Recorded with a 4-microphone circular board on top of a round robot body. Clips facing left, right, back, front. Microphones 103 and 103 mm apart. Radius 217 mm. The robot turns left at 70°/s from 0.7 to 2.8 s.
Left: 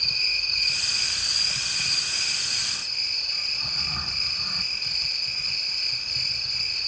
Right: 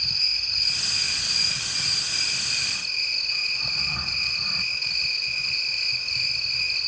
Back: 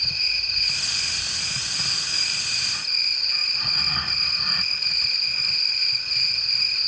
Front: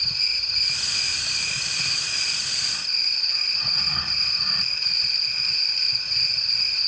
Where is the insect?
50° left, 3.5 m; by 6.9 s 95° right, 3.5 m.